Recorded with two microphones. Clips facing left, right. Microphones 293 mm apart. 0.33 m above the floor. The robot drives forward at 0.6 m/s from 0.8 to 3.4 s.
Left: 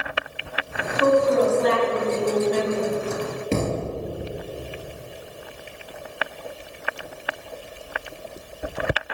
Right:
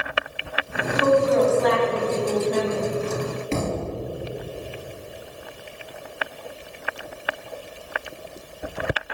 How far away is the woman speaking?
About 2.5 m.